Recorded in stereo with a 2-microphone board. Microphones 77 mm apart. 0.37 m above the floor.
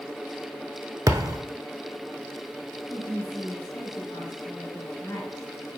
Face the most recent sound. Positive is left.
turn(degrees=55)  # may be behind; listen again after turning